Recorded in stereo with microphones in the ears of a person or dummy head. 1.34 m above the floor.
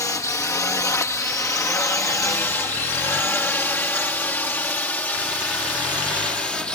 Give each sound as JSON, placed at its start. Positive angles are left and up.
{"t": 0.0, "sound": "a drone", "side_deg": 15}